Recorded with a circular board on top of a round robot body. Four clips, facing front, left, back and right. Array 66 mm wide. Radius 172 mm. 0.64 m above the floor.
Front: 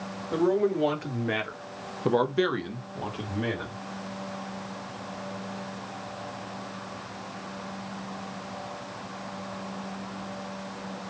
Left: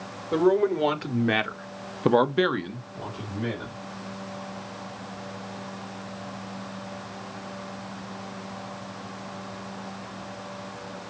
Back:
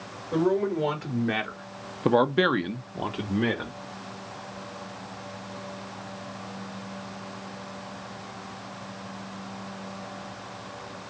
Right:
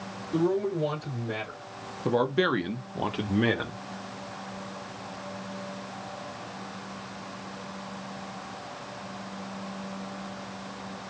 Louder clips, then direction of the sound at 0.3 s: Left 5 dB, even; 85° left.